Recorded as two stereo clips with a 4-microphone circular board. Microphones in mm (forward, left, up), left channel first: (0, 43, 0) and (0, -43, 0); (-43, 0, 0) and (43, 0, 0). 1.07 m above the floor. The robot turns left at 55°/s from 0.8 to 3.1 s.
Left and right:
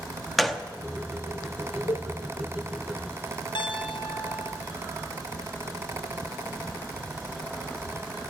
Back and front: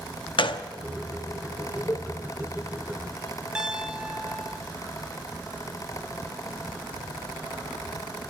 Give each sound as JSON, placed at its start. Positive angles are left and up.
{"t": 0.4, "sound": "a gunshot", "azimuth_deg": 180, "distance_m": 0.8}
{"t": 1.9, "sound": "a cowbell", "azimuth_deg": 120, "distance_m": 0.5}
{"t": 3.5, "sound": "a piano", "azimuth_deg": 80, "distance_m": 1.6}